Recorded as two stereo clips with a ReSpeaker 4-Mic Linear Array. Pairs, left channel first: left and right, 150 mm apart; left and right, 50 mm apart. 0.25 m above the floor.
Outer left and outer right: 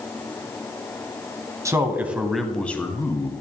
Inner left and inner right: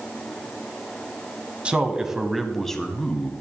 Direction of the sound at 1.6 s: 20° right (ahead or behind).